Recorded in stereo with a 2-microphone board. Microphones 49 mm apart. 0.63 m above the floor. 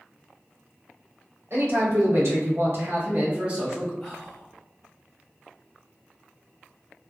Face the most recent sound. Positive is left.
turn(degrees=10)  # may be behind; listen again after turning